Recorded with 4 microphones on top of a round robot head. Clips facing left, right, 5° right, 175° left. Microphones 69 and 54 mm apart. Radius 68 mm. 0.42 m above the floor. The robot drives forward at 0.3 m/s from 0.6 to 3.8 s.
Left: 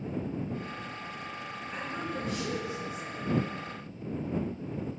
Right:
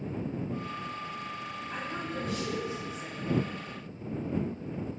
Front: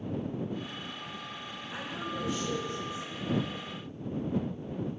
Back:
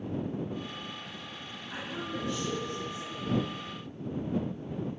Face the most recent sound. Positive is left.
turn(degrees=-145)